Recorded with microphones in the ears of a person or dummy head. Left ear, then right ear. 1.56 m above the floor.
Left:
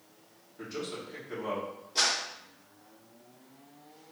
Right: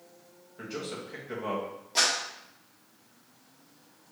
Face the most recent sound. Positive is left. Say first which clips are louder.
# right 2 dB
turn(degrees=-65)  # may be behind; listen again after turning